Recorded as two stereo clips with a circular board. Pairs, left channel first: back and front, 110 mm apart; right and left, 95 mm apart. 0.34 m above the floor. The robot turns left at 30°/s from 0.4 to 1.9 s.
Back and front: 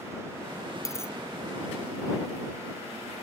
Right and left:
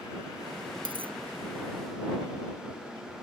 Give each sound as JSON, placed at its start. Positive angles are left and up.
{"t": 0.8, "sound": "a dropped coin", "azimuth_deg": 120}